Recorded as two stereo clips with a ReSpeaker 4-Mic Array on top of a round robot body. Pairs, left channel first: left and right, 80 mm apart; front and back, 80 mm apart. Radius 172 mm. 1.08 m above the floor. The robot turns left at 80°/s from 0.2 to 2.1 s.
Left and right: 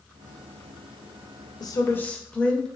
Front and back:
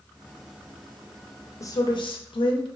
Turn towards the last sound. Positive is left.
turn(degrees=15)